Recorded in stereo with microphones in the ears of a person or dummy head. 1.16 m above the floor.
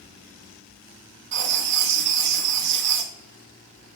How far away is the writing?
About 0.9 m.